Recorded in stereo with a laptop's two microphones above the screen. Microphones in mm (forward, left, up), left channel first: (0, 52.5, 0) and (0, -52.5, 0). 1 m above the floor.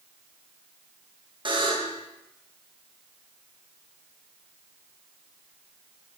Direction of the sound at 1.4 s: 50° right (ahead or behind).